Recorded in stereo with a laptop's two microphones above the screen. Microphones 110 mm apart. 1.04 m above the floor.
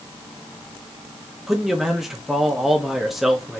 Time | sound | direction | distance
1.5 | a man speaking | centre (ahead or behind) | 1.0 m